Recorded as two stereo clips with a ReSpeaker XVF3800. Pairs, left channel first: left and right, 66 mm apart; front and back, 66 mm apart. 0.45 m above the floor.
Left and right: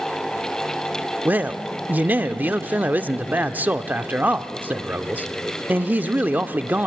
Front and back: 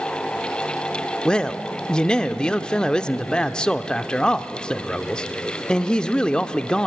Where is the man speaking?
65° right, 0.7 m.